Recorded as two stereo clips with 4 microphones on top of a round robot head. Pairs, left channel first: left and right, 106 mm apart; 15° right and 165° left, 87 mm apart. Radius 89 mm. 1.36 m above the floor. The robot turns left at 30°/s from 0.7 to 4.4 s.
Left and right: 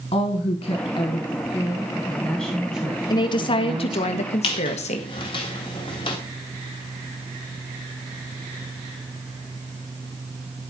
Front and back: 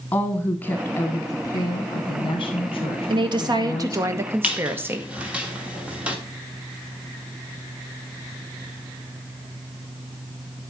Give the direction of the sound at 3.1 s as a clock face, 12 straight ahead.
7 o'clock.